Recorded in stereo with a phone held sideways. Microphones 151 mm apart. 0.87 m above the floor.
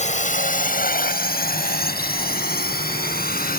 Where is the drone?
50° left (ahead or behind); by 3.6 s 75° left (ahead or behind).